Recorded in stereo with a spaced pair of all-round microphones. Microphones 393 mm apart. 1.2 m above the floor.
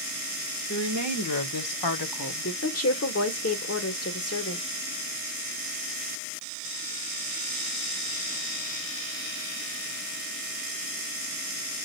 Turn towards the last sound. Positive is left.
turn(degrees=35)  # may be behind; listen again after turning